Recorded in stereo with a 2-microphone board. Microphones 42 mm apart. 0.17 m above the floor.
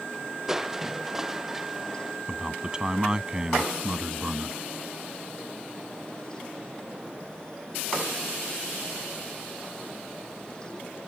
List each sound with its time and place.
0.5 s crushing: 10° right (ahead or behind)
2.3 s a man speaking: 20° right (ahead or behind)